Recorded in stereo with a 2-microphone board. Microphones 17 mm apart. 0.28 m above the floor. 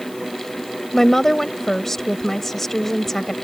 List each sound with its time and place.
0.9 s a woman speaking: 20° left (ahead or behind)